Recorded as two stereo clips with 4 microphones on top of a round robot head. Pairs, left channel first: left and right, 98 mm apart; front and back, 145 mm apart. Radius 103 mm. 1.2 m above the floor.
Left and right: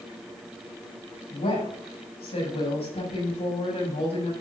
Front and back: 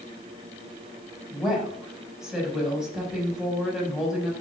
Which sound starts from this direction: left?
A woman speaking, at 1.3 s.